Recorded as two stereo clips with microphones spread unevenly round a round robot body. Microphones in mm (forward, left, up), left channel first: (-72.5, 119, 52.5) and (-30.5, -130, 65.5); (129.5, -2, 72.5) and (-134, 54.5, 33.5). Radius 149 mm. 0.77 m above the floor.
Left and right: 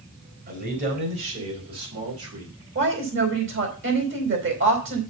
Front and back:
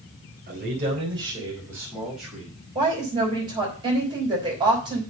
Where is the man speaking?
130° right, 4 m; by 2.5 s 100° right, 4.5 m.